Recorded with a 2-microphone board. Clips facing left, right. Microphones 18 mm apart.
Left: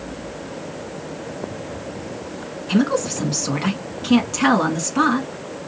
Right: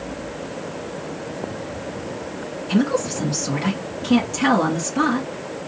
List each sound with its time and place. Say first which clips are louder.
2.7 s a woman speaking: left 1 dB; 25° left (ahead or behind), 1.5 m